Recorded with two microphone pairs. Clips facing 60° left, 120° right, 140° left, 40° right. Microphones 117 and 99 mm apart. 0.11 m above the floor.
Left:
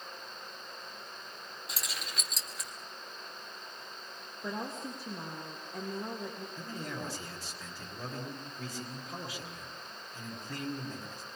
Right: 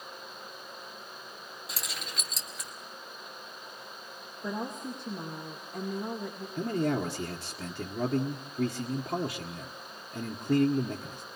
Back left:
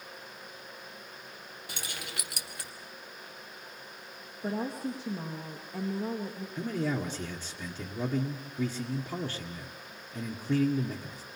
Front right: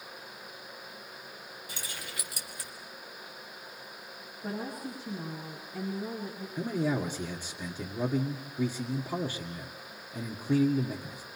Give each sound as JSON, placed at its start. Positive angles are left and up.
{"t": 1.7, "sound": "keys jangling", "azimuth_deg": 150, "distance_m": 2.0}
{"t": 4.4, "sound": "a woman speaking", "azimuth_deg": 145, "distance_m": 4.0}
{"t": 6.6, "sound": "a man speaking", "azimuth_deg": -115, "distance_m": 1.9}